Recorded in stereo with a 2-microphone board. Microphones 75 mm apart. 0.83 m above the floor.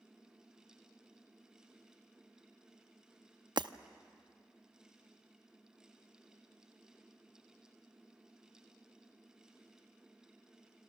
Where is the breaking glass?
75° right (ahead or behind), 0.6 m.